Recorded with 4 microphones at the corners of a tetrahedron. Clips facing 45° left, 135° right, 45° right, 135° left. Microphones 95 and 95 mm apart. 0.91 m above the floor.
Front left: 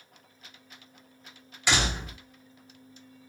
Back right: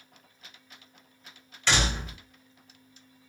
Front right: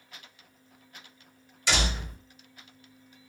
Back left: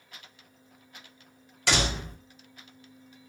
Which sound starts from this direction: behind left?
A door slam, at 1.7 s.